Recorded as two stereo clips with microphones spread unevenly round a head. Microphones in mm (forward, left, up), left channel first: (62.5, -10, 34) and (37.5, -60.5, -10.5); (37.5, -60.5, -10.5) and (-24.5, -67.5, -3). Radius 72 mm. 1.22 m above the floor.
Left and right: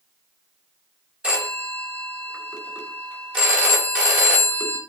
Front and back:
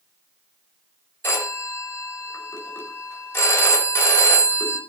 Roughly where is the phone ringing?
Ahead right.